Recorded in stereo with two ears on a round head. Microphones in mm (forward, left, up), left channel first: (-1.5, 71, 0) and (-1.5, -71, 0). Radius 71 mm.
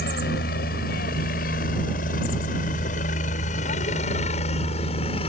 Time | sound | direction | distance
0.0 | a helicopter | 65° left (ahead or behind) | ?